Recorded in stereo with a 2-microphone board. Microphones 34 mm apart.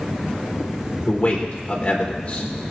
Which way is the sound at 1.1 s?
35° left (ahead or behind).